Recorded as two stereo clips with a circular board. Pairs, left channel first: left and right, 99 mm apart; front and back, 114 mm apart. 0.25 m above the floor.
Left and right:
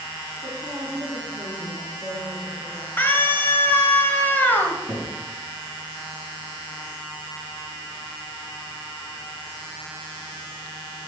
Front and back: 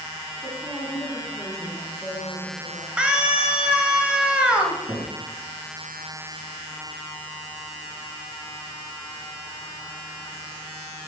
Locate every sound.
0.4 s a woman speaking: 50° right, 2 m; by 2.9 s 65° right, 3.5 m
3.0 s a scream: 110° left, 1.1 m
4.9 s a cupboard door: 160° right, 2.5 m